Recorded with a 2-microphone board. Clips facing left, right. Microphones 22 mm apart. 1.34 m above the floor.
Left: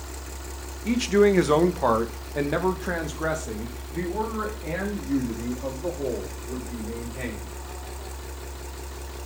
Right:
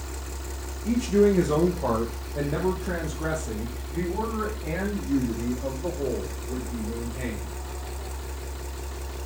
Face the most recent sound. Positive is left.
turn(degrees=20)  # may be behind; listen again after turning